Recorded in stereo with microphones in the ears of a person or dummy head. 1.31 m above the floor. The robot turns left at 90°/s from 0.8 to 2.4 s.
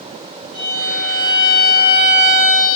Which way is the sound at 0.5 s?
115° right.